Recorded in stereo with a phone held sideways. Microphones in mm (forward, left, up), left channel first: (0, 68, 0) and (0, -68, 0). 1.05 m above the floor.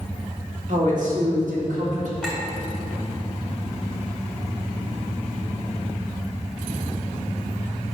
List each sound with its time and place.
0.7 s a woman speaking: 70° right (ahead or behind), 2 m
2.2 s a clink: 5° left (ahead or behind), 2 m